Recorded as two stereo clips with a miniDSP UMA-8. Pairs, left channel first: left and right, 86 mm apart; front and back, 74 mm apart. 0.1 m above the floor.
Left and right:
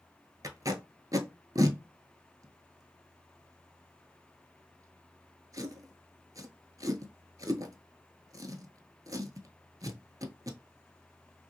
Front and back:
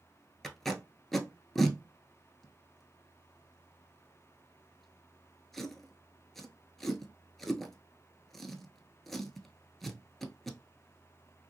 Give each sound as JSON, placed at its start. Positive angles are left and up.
{"t": 0.4, "sound": "tape being pulled", "azimuth_deg": -85, "distance_m": 0.7}